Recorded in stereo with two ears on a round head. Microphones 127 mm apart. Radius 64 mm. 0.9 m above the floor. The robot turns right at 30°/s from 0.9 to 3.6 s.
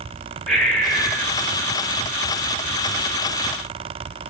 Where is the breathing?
5° left (ahead or behind), 0.9 m; by 1.3 s 15° left (ahead or behind), 0.9 m.